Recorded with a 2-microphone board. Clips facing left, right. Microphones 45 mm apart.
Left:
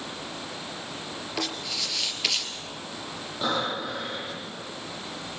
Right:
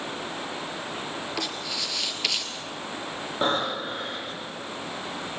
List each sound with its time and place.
1.4 s writing: centre (ahead or behind), 3 m
3.4 s breathing: 35° right (ahead or behind), 9 m